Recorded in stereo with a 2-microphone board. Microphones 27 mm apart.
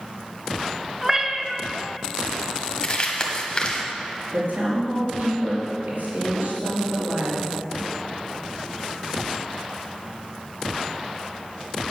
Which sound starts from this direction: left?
Crumpling, at 2.8 s.